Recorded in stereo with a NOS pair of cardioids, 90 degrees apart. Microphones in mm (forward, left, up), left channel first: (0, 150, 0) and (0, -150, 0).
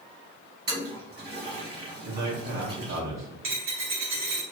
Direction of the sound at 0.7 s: 35° right.